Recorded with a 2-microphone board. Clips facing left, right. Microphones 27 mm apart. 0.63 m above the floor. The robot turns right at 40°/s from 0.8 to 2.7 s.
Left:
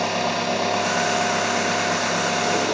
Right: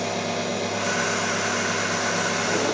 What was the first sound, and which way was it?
An engine running, 70° left.